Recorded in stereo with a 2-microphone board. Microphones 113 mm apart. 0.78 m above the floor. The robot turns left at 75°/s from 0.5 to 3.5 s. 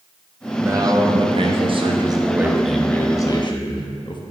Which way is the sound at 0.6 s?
25° right.